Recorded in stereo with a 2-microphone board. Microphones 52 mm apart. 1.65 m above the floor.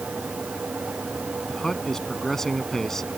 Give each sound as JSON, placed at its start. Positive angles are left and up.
{"t": 1.5, "sound": "a man speaking", "side_deg": 5}